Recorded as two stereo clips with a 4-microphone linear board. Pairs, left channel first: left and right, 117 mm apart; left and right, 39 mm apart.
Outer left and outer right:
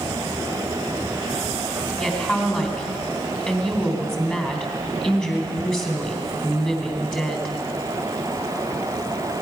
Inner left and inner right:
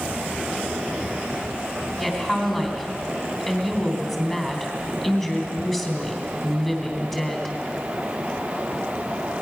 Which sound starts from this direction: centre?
A woman speaking, at 2.0 s.